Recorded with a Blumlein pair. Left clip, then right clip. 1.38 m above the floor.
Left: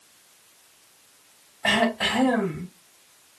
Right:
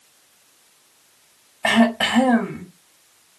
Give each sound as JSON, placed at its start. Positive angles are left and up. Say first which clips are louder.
{"t": 1.6, "sound": "throat clearing", "louder": "right 4 dB", "azimuth_deg": -25, "distance_m": 1.3}